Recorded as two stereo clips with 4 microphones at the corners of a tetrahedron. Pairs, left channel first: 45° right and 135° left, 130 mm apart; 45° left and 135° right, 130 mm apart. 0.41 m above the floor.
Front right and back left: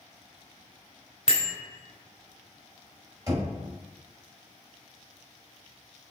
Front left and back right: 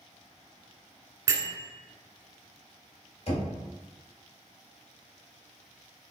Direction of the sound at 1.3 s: 70° right.